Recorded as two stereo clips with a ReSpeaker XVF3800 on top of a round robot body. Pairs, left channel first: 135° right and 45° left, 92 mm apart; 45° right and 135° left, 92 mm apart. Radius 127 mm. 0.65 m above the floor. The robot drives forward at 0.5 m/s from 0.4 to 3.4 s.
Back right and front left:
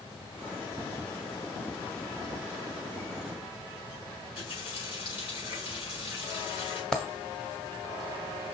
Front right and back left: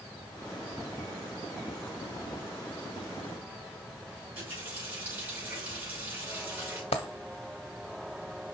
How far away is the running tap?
About 5 m.